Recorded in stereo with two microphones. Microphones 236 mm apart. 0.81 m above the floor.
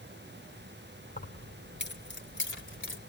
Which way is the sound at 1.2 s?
40° left (ahead or behind).